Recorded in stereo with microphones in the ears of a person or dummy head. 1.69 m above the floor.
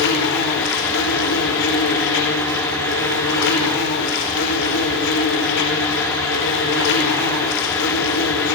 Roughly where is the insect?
Left.